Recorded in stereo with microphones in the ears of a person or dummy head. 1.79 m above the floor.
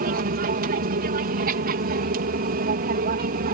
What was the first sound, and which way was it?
An aircraft, 50° right (ahead or behind).